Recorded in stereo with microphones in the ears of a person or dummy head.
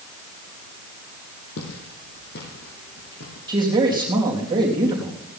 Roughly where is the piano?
I don't hear a piano.